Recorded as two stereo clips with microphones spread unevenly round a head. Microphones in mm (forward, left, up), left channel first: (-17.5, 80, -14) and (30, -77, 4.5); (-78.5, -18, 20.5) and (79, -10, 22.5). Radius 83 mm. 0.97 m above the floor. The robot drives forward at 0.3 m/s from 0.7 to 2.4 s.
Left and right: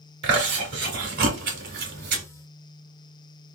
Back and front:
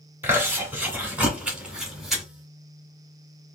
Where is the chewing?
75° right, 2 m; by 2.2 s 85° right, 2.0 m.